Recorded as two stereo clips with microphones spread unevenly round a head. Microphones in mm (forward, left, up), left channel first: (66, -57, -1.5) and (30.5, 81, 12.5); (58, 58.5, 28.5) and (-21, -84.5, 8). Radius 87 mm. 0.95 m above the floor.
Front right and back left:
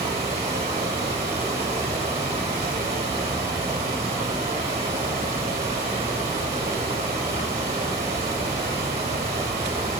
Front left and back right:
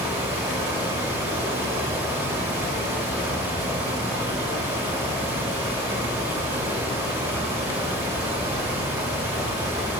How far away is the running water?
About 1.5 m.